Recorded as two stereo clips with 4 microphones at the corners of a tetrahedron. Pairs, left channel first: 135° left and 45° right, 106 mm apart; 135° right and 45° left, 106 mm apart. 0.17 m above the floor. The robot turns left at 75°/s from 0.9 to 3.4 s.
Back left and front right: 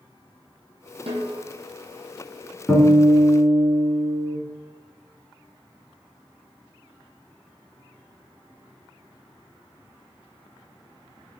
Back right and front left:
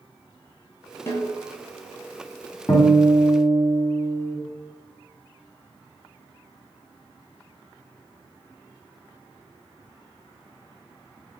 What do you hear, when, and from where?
1.1 s a snare drum: 70° right, 1.0 m; by 1.4 s 95° right, 1.0 m
2.7 s a guitar: 150° right, 1.2 m; by 4.4 s 155° left, 1.2 m